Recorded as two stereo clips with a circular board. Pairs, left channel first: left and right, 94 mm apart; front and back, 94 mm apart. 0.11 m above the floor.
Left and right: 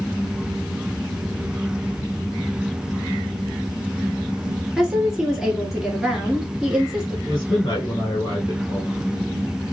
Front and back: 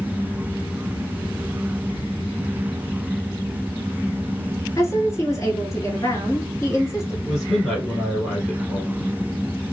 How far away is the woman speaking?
About 1.5 m.